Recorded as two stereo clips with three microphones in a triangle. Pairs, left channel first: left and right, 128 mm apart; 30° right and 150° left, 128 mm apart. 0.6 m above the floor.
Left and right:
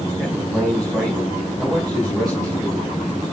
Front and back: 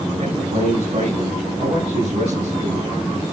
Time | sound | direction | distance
0.2 | a man speaking | straight behind | 5.5 m